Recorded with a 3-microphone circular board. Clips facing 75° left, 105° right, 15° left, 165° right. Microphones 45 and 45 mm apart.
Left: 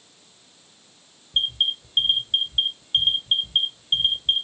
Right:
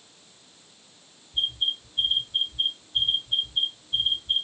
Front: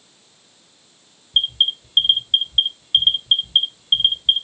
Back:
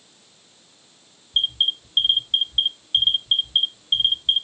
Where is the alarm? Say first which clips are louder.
Left 4 dB, front 3 dB; 75° left, 4 m.